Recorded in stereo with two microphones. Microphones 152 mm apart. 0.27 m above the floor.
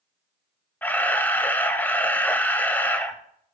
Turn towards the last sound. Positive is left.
turn(degrees=10)  # may be behind; listen again after turning